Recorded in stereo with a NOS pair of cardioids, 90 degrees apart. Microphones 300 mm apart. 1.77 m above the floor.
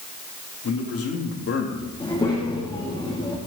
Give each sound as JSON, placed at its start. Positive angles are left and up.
{"t": 0.6, "sound": "a man speaking", "azimuth_deg": 50, "distance_m": 3.5}
{"t": 2.0, "sound": "a child speaking", "azimuth_deg": 15, "distance_m": 2.5}